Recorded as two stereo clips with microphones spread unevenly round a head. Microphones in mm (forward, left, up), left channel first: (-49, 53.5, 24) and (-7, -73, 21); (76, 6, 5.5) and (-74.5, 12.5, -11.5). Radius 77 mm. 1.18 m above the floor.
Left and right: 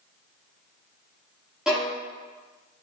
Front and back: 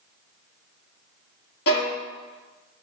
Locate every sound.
1.7 s a violin: 15° left, 2.5 m